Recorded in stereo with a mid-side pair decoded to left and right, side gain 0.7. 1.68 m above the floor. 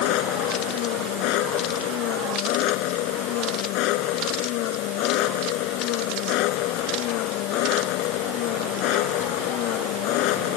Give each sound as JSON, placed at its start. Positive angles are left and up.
{"t": 0.0, "sound": "an engine running", "azimuth_deg": 65}